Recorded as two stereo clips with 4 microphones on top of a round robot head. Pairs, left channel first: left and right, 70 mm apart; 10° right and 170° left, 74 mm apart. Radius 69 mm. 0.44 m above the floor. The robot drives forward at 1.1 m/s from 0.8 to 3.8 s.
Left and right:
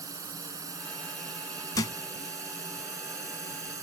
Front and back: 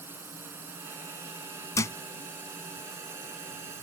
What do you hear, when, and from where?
0.0 s a drone: 125° right; by 3.8 s 130° right
1.8 s a thud: 40° left; by 2.0 s 45° left